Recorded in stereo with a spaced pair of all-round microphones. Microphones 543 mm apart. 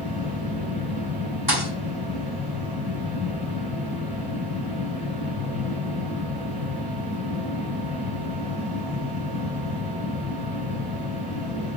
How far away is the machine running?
About 5 m.